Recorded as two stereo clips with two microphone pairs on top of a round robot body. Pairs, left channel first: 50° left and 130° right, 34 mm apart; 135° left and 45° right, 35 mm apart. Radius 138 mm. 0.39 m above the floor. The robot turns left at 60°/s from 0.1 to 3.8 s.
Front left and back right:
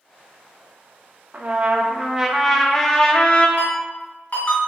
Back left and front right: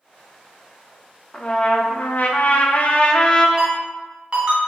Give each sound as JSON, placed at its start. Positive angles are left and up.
{"t": 1.3, "sound": "a trumpet", "azimuth_deg": -155, "distance_m": 0.7}
{"t": 3.6, "sound": "a ringtone", "azimuth_deg": 25, "distance_m": 1.8}